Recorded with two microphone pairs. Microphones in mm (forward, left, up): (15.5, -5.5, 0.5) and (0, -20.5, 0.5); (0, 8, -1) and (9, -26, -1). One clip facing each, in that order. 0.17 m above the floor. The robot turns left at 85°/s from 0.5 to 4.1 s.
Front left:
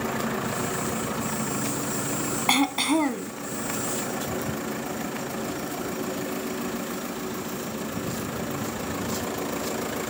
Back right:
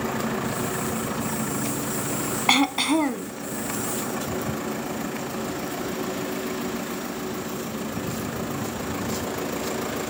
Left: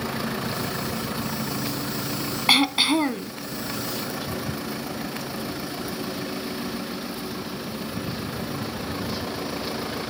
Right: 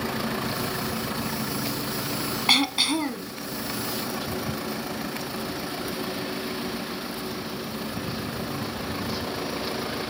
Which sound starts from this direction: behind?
Throat clearing, at 2.5 s.